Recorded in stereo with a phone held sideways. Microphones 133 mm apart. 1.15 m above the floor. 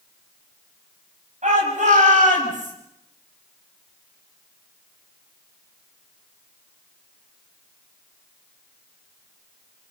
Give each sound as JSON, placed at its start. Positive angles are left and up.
{"t": 1.4, "sound": "a shout", "side_deg": -60, "distance_m": 7.0}